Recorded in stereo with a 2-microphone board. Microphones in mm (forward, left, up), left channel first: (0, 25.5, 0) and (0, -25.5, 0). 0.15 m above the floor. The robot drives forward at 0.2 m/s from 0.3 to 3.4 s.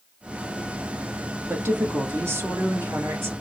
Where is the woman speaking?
55° right (ahead or behind), 2 m.